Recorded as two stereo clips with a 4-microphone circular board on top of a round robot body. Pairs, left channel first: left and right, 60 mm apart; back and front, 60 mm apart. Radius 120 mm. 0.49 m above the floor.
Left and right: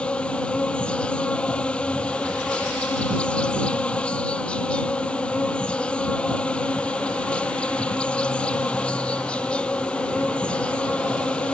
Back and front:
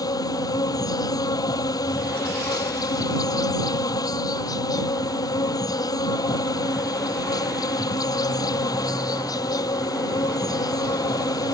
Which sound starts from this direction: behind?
An insect, at 0.0 s.